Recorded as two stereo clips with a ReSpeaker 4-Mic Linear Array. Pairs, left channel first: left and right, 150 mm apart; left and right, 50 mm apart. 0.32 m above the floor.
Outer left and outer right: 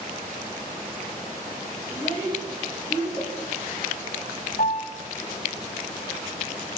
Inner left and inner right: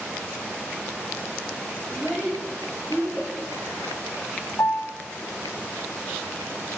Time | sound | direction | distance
1.9 | a child speaking | 25° left (ahead or behind) | 9 m
4.6 | a piano | 70° left (ahead or behind) | 0.7 m